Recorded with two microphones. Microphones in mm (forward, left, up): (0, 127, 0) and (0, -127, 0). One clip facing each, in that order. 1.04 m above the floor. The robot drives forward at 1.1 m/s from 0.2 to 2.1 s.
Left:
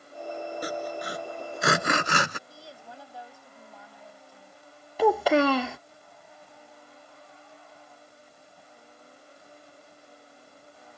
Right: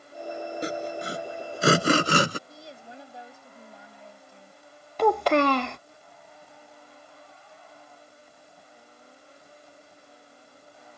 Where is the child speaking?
5° left (ahead or behind).